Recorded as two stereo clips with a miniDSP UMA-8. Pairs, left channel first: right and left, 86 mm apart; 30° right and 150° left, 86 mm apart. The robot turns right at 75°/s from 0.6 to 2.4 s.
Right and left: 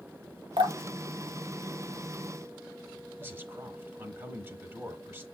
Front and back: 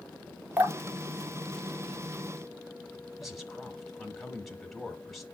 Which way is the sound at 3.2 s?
60° left.